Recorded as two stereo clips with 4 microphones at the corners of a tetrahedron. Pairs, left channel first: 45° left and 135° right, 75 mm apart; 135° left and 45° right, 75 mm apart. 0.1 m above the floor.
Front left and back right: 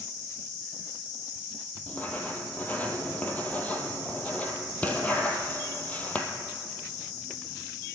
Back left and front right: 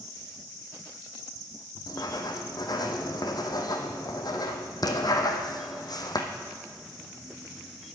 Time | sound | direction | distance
1.9 | writing | 115° left | 1.5 m